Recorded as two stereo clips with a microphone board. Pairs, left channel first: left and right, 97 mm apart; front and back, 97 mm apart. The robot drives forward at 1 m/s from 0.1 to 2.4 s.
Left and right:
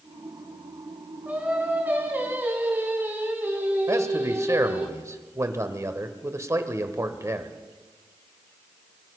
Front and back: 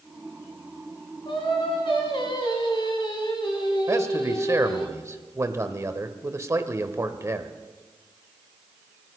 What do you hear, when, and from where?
1.2 s singing: 20° right, 4 m; by 4.9 s 25° right, 3 m
3.9 s a man speaking: 135° right, 1.2 m